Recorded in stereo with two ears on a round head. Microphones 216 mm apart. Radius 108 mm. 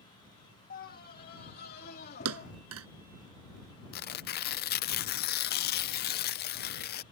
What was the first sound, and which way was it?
A scream, 40° left (ahead or behind).